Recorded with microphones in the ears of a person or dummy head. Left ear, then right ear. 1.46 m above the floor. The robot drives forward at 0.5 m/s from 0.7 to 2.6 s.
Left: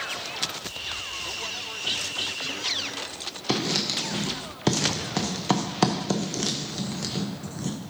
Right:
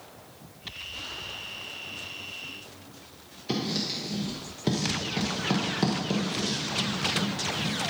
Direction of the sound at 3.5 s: 45° left (ahead or behind).